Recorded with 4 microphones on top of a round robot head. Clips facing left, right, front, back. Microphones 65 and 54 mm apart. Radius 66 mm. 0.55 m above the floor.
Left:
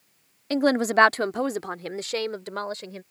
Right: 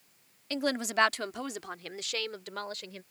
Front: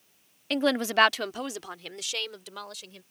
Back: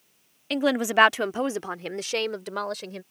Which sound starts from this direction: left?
A woman speaking, at 0.5 s.